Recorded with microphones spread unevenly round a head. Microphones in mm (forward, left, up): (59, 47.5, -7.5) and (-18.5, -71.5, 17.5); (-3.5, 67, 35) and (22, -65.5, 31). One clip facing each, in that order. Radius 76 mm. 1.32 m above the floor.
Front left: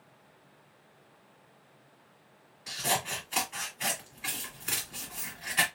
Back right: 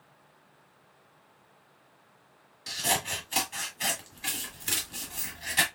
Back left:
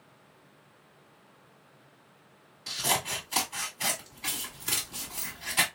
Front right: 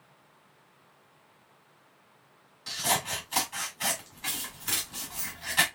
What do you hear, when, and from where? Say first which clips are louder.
2.7 s scissors: even, front right 1 dB; 175° right, 1.9 m